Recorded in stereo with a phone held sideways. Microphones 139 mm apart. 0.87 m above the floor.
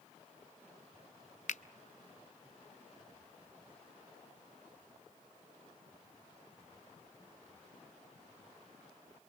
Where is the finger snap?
60° left (ahead or behind), 0.5 m.